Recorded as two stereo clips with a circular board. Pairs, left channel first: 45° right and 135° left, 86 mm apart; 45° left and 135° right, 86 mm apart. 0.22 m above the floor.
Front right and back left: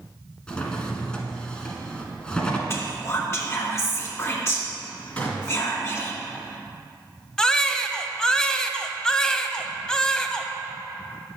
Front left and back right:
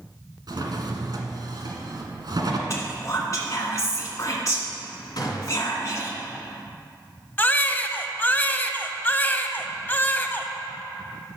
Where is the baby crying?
25° left, 0.6 m.